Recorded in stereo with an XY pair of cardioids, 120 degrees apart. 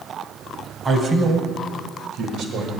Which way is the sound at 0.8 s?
25° right.